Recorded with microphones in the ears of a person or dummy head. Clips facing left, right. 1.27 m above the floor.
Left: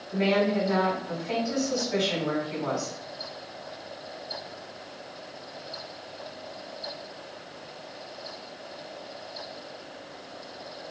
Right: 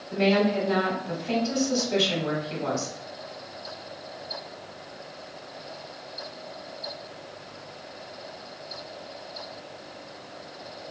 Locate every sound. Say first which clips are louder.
0.1 s a woman speaking: right 2 dB; 60° right (ahead or behind), 1.5 m